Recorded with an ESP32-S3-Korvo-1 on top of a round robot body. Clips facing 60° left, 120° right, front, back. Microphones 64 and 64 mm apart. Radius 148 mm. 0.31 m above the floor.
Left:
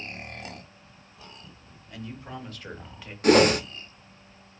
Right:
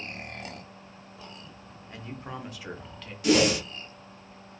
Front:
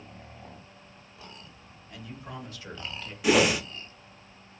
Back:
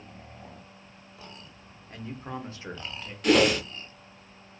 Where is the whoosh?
80° left, 0.5 m.